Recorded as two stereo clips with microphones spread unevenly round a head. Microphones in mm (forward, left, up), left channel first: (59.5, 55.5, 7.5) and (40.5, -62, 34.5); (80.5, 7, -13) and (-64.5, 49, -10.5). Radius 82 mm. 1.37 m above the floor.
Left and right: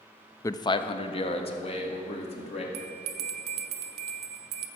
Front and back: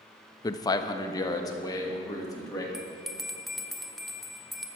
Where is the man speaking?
40° left, 0.5 m; by 2.6 s 50° left, 3 m.